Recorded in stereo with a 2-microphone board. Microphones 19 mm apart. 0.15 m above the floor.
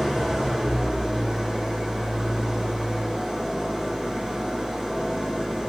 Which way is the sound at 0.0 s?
50° right (ahead or behind).